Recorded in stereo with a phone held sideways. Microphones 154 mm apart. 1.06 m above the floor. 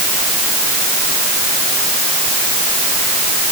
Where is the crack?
I don't hear a crack.